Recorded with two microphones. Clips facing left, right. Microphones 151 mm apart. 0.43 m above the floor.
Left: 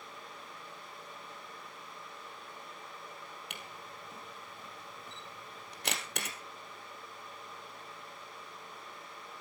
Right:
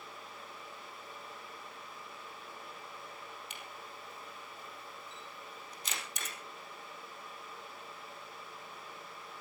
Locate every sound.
3.5 s a camera shutter: 70° left (ahead or behind), 3 m